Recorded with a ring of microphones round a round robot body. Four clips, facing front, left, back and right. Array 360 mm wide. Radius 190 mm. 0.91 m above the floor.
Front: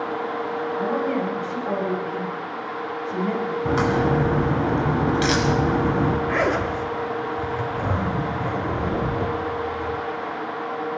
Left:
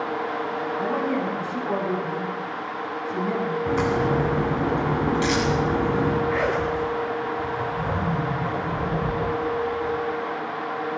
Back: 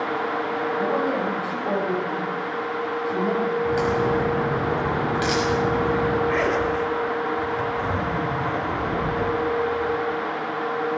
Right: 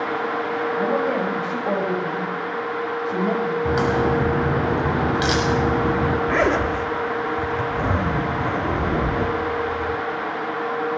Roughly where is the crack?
Ahead right.